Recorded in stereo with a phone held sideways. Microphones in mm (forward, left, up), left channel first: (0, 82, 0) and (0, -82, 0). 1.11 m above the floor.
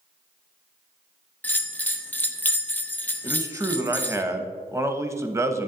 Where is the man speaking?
15° right (ahead or behind), 0.8 m.